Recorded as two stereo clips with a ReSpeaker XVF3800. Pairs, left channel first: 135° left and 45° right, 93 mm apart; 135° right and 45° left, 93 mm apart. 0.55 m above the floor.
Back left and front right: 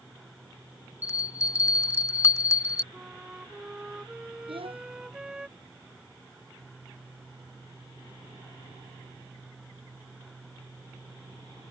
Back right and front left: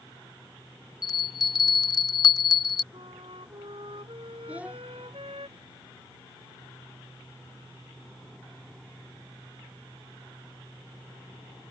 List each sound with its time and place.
1.0 s a bell: 170° right
2.9 s a flute: 35° left
4.5 s a child speaking: 30° right